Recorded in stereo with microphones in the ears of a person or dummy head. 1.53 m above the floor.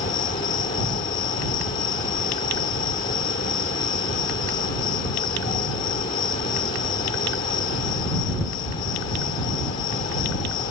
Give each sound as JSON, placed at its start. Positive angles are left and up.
{"t": 0.0, "sound": "an insect", "side_deg": 20}